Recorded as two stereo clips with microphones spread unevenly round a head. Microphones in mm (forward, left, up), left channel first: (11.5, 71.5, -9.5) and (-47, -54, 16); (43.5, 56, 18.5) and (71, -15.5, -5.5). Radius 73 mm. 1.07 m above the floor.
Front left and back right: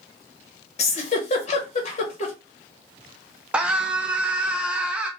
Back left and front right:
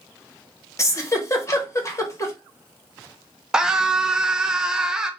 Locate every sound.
0.8 s a giggle: 50° left, 1.1 m
3.5 s a scream: 20° right, 0.7 m